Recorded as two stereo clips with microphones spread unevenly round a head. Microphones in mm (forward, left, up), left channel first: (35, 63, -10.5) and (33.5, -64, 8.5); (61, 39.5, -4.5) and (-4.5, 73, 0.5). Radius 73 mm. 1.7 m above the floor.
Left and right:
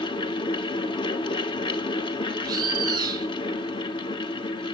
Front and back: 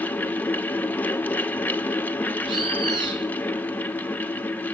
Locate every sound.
0.0 s a fan: 40° left, 1.2 m
2.4 s a bird: 155° right, 1.7 m